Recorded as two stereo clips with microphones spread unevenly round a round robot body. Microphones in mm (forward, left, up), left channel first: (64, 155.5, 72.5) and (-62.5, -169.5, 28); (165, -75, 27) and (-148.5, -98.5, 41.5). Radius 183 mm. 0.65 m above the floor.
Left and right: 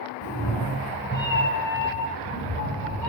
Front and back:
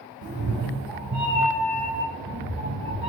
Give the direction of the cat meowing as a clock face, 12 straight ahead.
8 o'clock.